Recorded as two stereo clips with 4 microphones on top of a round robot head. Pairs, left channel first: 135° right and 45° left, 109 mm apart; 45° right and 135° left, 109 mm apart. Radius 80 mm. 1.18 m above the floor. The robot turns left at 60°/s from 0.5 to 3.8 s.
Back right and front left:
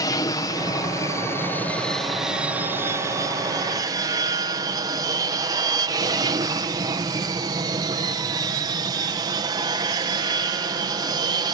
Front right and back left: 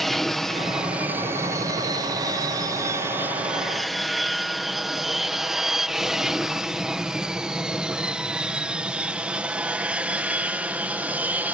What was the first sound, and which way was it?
An aircraft, 135° right.